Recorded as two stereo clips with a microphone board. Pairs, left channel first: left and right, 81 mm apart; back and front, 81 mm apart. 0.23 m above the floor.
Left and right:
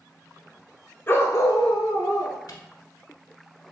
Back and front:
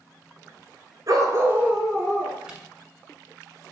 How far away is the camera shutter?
About 0.9 m.